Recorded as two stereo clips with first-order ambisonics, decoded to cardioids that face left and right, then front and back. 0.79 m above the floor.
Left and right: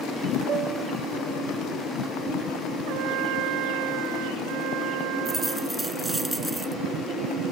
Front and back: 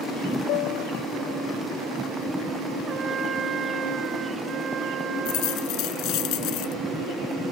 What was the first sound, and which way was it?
A piano, 30° right.